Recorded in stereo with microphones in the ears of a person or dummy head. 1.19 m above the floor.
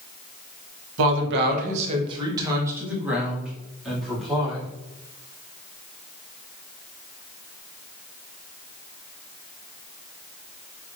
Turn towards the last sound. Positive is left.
turn(degrees=0)  # may be behind; listen again after turning